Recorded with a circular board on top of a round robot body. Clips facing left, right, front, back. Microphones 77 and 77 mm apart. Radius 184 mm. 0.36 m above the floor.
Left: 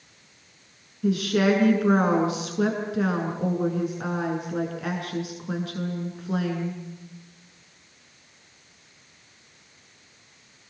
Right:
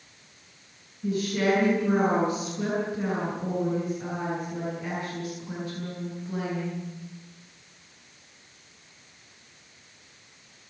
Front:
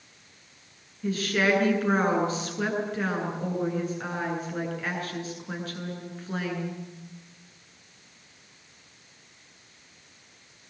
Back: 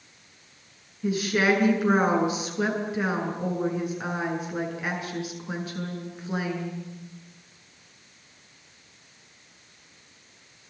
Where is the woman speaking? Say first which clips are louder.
Left 4 dB, back 2 dB; 105° left, 8.5 m.